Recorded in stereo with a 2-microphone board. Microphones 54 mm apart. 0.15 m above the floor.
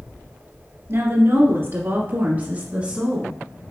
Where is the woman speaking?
50° right (ahead or behind), 1.8 m; by 3.4 s 15° right (ahead or behind), 1.3 m.